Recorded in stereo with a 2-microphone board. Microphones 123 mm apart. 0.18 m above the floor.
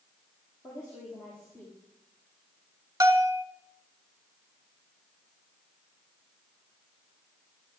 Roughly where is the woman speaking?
Left.